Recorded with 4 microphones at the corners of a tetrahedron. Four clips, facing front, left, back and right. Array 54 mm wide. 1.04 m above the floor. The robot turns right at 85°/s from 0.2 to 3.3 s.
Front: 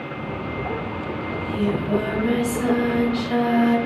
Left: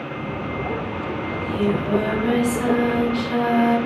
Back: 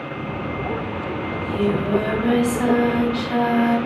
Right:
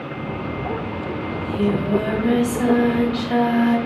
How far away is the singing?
About 1.9 m.